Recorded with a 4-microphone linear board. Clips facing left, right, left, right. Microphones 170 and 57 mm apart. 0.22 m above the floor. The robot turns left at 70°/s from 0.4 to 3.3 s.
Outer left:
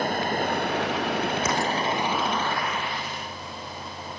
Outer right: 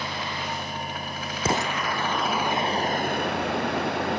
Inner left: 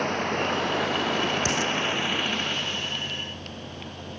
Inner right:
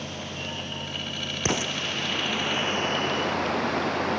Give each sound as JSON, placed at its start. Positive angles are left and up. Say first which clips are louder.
{"t": 0.0, "sound": "running water", "louder": "outer left 7 dB, inner left 9 dB", "azimuth_deg": 130}
{"t": 1.4, "sound": "an explosion", "louder": "outer left 1 dB, inner left 2 dB", "side_deg": -30}